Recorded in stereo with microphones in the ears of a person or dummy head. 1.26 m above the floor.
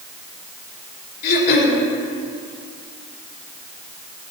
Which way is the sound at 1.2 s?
55° left (ahead or behind).